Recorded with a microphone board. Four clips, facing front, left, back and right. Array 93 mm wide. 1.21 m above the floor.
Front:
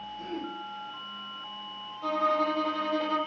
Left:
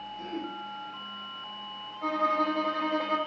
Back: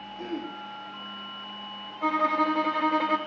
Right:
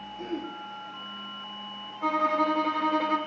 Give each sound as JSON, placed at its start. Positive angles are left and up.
{"t": 0.2, "sound": "throat clearing", "azimuth_deg": -170, "distance_m": 1.6}
{"t": 2.0, "sound": "a violin", "azimuth_deg": -170, "distance_m": 0.9}